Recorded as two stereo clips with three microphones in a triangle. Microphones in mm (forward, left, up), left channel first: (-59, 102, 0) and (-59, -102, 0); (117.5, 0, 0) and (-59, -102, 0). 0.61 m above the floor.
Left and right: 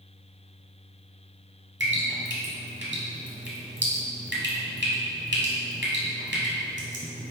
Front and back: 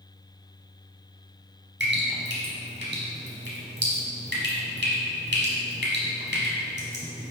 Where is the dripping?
120° right, 1.2 m.